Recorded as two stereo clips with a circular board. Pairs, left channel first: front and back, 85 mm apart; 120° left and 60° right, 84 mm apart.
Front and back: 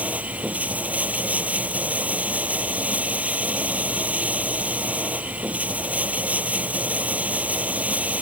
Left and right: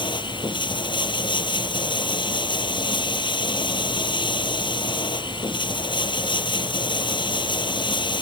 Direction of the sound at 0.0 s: 110° left.